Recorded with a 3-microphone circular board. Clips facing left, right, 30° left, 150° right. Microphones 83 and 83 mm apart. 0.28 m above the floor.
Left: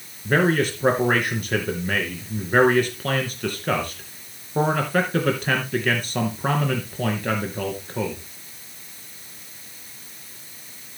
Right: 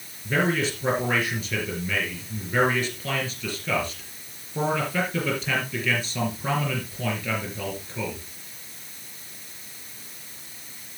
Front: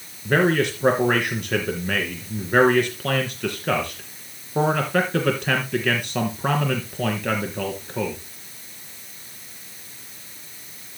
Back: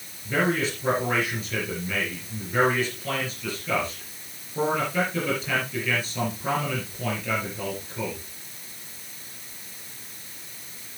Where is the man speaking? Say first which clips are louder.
Left 4 dB, front 5 dB; 55° left, 4 m.